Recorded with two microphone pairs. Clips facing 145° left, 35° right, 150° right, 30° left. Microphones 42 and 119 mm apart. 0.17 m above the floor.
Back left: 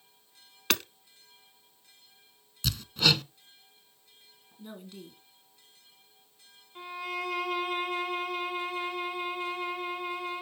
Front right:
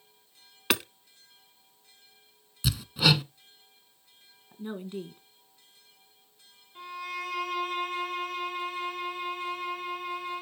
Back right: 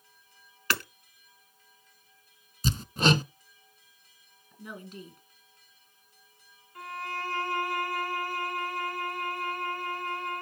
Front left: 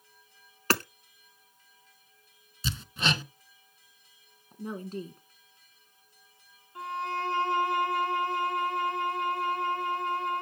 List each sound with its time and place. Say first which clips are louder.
0.7 s hammering: front right 2 dB, front left 4 dB; 40° left, 0.6 m
2.6 s hammering: front right 2 dB, back right 6 dB; 110° right, 0.7 m
4.5 s a woman speaking: front right 9 dB, front left 7 dB; 10° left, 1.3 m
6.8 s a violin: back left 1 dB, front left 4 dB; 75° left, 1.8 m